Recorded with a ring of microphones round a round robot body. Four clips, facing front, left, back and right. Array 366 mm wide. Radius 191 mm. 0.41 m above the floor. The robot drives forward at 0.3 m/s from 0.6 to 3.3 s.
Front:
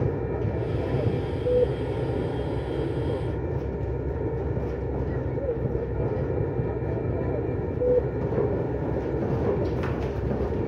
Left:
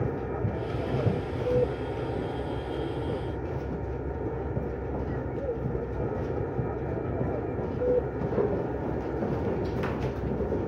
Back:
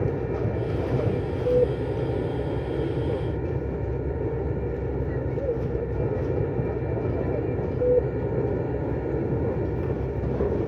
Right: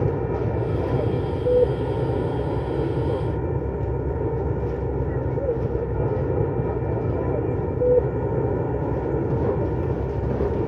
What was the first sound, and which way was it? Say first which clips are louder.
An aircraft: right 7 dB, back 1 dB; 105° right.